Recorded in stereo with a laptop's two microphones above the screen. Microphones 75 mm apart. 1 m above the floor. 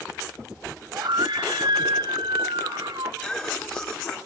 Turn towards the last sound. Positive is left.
turn(degrees=20)  # may be behind; listen again after turning